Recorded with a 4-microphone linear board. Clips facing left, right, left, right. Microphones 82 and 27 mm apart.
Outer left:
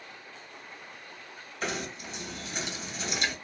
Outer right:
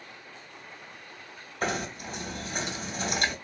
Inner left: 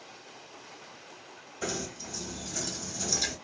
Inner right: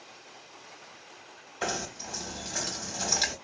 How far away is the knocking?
About 1.0 m.